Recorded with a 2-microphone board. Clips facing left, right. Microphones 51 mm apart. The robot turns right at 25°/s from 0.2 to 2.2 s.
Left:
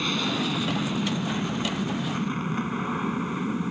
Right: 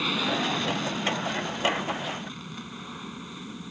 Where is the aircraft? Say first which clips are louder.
Even; 5° right; by 3.7 s 45° left.